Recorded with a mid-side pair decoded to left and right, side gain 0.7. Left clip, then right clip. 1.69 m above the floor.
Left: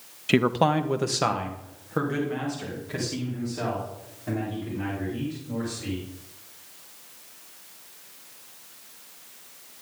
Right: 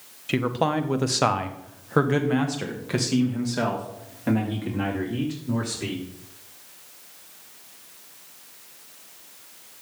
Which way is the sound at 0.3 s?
25° left.